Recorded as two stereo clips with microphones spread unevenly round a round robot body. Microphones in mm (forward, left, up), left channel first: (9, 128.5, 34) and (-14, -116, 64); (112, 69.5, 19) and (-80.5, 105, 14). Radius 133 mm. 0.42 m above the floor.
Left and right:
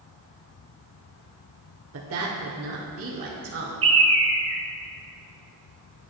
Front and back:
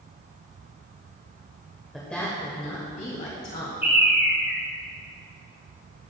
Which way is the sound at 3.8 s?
115° right.